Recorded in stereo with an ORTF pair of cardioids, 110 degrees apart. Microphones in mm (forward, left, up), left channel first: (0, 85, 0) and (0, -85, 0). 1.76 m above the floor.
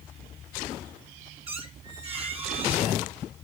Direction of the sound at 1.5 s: 35° right.